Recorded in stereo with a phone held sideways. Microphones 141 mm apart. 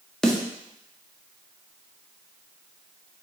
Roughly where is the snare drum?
Centre.